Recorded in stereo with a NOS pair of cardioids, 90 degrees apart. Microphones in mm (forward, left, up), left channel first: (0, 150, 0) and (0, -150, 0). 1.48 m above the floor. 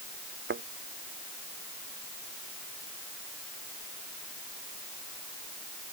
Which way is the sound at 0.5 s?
40° right.